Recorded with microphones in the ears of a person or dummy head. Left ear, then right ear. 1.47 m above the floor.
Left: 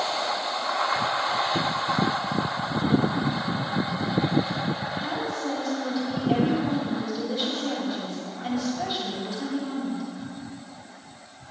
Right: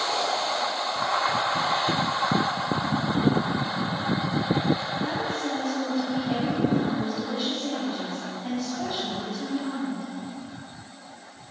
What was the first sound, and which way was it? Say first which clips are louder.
A woman speaking: even; 35° left (ahead or behind).